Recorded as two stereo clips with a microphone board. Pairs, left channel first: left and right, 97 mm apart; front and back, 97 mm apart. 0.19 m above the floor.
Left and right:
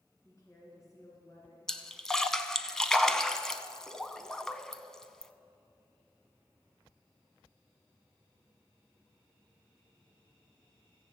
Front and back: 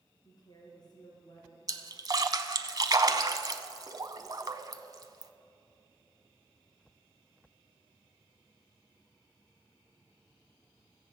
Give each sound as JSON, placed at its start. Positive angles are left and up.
{"t": 0.2, "sound": "a woman speaking", "azimuth_deg": 40, "distance_m": 3.5}
{"t": 1.7, "sound": "a splash", "azimuth_deg": 170, "distance_m": 0.7}